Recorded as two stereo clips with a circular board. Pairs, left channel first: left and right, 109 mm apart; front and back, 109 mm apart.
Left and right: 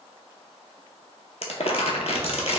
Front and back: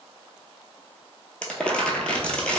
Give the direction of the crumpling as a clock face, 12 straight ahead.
9 o'clock.